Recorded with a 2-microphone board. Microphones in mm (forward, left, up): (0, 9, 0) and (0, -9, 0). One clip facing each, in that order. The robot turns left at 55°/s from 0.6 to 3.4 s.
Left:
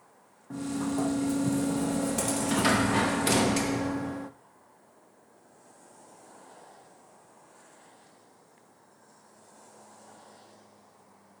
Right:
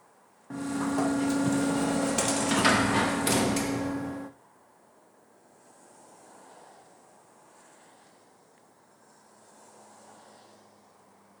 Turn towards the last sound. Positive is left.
turn(degrees=165)